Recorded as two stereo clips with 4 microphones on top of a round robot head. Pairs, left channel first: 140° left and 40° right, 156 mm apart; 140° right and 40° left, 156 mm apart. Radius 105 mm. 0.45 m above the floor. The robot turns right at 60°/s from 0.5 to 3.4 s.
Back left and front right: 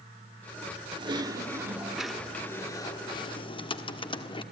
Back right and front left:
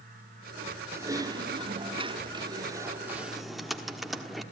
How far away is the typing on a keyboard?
About 1.5 m.